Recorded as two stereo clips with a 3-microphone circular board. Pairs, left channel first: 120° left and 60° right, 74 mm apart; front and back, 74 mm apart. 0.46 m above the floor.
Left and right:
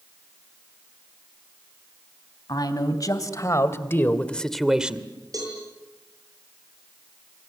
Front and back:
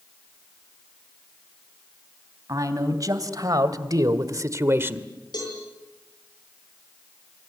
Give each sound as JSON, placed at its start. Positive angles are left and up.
{"t": 2.5, "sound": "a man speaking", "azimuth_deg": 145, "distance_m": 3.5}
{"t": 5.3, "sound": "a cowbell", "azimuth_deg": -25, "distance_m": 10.0}